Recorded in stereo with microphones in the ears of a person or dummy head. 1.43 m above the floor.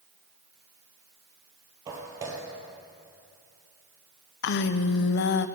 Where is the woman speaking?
60° left (ahead or behind), 0.5 m.